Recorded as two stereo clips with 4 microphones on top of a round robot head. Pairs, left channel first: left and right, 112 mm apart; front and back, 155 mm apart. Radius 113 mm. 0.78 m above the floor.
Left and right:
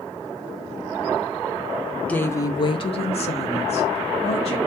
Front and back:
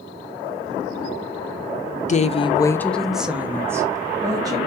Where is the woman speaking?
15° left, 0.5 m; by 4.6 s 115° left, 1.3 m.